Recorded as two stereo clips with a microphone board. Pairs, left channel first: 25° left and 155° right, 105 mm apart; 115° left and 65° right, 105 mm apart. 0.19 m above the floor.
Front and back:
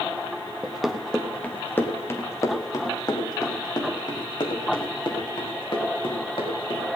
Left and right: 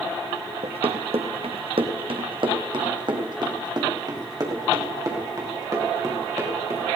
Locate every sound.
0.6 s running footsteps: 75° right, 1.4 m; by 6.9 s 10° right, 4.5 m